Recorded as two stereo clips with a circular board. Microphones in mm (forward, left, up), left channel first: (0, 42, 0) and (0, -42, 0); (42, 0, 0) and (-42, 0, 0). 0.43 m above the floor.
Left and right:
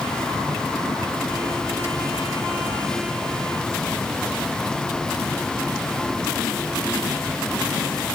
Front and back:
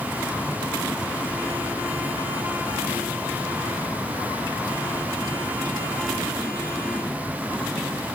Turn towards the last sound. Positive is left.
No sound to turn to.